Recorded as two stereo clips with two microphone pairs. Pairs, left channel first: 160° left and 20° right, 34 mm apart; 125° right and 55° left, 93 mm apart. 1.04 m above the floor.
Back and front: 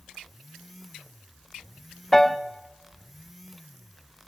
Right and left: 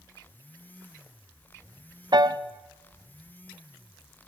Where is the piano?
80° left, 0.7 m.